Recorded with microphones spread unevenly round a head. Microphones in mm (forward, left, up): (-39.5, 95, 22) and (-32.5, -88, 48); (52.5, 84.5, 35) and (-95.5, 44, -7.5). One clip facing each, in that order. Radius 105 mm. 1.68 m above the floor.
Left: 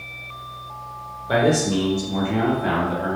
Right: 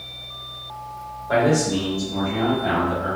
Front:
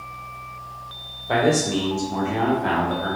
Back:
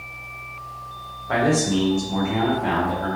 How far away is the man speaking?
About 0.6 m.